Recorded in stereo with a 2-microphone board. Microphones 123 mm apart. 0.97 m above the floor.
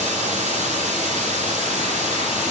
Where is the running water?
80° right, 8.5 m.